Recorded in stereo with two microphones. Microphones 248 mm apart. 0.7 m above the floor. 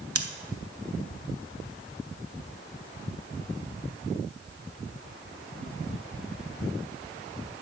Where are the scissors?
70° right (ahead or behind), 1.0 m.